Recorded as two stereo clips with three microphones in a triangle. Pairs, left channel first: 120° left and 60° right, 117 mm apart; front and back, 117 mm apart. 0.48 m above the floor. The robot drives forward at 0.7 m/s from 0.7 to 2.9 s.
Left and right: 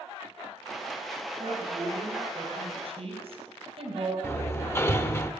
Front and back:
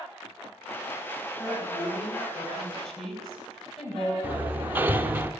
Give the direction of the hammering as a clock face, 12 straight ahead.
7 o'clock.